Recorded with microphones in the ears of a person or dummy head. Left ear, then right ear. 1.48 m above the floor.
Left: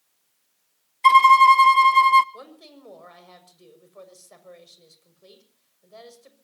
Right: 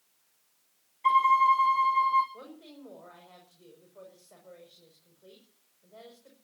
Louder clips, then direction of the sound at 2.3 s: Left 4 dB; 80° left.